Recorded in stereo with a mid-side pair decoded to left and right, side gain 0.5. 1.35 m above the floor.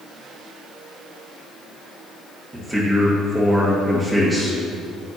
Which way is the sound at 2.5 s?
15° right.